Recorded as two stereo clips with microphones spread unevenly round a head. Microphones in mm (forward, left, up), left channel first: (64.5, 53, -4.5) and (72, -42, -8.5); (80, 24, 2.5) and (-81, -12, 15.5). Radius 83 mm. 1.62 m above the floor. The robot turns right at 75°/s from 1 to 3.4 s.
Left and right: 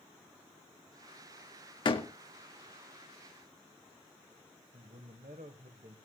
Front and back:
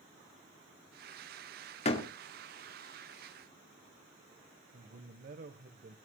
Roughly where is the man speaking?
Behind right.